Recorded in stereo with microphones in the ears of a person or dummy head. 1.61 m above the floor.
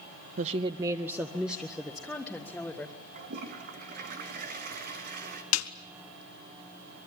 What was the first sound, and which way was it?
A woman speaking, 45° right (ahead or behind).